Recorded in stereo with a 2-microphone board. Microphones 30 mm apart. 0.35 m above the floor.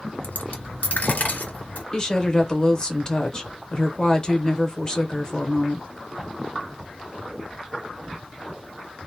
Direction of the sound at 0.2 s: 70° left (ahead or behind).